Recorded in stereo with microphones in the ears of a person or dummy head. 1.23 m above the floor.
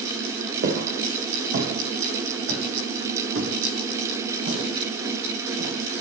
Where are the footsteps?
55° right (ahead or behind), 3 m.